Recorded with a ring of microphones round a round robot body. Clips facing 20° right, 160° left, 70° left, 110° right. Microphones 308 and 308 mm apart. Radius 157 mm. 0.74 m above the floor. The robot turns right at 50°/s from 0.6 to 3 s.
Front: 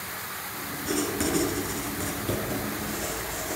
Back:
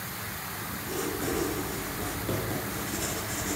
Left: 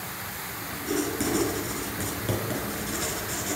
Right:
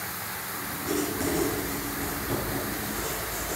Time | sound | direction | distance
0.8 | writing | 20° right | 3.5 m